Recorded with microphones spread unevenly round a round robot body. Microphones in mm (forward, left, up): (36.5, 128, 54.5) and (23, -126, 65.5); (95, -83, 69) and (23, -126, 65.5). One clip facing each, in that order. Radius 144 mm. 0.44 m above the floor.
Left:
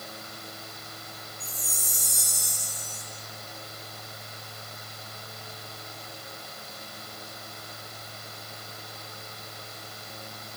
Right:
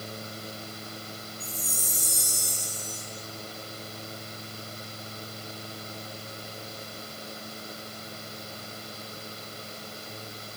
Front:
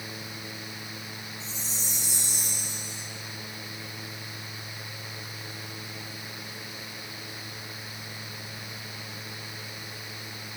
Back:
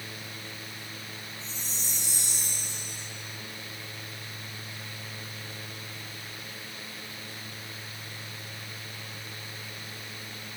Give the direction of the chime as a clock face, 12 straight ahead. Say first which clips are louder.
Right 4 dB, front 2 dB; 11 o'clock.